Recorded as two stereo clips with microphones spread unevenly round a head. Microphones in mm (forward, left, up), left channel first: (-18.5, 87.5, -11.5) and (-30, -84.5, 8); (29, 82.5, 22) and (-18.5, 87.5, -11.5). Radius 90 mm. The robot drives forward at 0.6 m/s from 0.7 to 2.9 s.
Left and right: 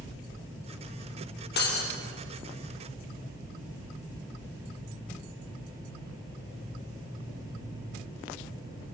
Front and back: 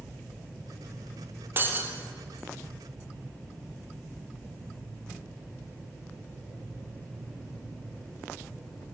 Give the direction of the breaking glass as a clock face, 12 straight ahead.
8 o'clock.